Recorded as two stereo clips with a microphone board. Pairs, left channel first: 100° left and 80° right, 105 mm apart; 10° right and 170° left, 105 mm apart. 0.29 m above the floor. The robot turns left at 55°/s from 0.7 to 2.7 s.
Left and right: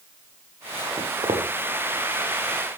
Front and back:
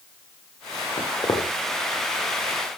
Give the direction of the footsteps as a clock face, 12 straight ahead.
1 o'clock.